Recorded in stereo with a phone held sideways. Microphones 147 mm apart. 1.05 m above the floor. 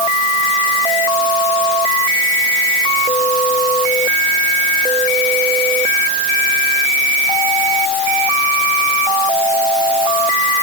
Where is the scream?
I don't hear a scream.